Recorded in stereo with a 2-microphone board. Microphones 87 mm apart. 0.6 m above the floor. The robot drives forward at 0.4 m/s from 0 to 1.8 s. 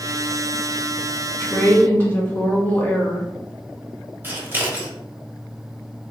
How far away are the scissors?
About 0.9 m.